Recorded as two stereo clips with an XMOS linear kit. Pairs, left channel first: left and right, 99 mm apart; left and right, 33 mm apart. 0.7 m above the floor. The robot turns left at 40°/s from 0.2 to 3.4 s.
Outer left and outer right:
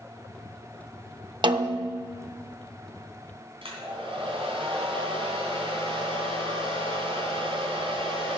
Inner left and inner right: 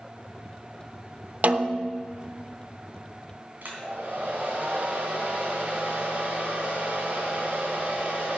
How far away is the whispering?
No whispering in this recording.